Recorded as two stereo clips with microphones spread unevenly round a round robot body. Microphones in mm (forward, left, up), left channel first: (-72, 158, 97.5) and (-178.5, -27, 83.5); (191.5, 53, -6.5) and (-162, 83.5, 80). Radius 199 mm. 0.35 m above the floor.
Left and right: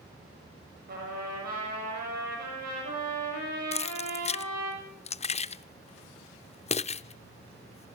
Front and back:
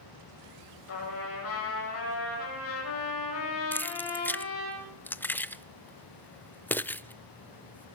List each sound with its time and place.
0.9 s a trumpet: 60° right, 7 m
3.7 s keys jangling: 40° left, 0.5 m